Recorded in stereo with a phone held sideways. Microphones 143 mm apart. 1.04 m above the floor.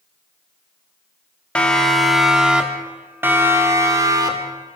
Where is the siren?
5° left (ahead or behind), 3.5 m; by 4.8 s 30° right (ahead or behind), 5 m.